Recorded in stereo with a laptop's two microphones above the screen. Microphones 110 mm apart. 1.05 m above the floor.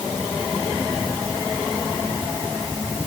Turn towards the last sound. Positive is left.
No sound to turn to.